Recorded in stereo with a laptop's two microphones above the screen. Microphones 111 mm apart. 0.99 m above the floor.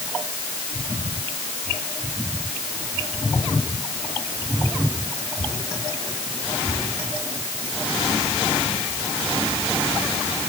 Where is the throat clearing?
I don't hear throat clearing.